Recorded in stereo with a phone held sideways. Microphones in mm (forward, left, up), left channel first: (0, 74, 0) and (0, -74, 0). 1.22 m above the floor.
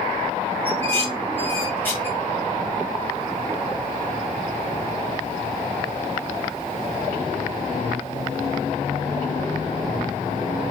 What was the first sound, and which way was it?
Dishes clattering, 15° left (ahead or behind).